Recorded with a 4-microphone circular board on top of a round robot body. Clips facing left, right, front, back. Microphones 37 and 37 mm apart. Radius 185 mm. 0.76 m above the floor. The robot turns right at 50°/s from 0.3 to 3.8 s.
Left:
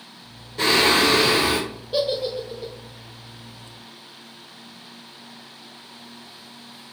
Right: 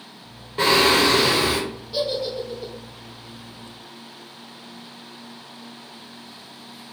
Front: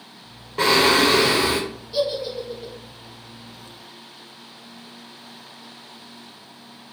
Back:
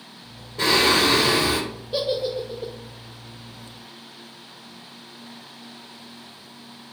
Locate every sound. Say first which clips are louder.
0.6 s singing: right 1 dB, front 2 dB; 25° right, 0.5 m; by 1.6 s 25° left, 0.5 m
1.9 s a giggle: left 2 dB, even; 135° left, 0.5 m; by 2.7 s 175° left, 0.5 m